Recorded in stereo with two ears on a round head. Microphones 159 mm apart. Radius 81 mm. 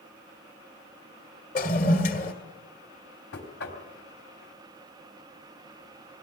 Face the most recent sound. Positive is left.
turn(degrees=60)  # may be behind; listen again after turning